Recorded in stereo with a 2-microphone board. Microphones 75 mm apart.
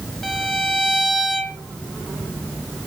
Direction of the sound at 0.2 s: 5° left (ahead or behind).